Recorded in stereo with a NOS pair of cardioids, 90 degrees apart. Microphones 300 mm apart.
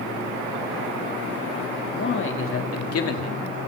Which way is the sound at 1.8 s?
35° left.